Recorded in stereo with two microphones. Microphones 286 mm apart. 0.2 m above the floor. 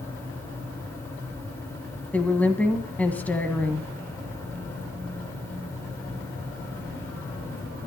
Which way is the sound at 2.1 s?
5° left (ahead or behind).